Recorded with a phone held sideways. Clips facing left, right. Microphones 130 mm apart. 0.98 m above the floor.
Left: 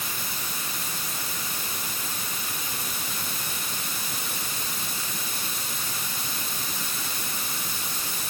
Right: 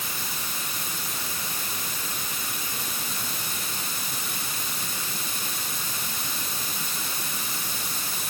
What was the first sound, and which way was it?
Only background noise.